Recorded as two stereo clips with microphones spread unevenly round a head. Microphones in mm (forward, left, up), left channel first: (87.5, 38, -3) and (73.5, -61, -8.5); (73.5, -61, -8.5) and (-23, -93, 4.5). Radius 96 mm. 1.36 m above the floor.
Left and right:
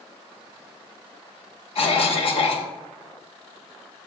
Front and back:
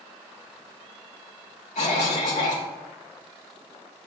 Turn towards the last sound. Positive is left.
turn(degrees=60)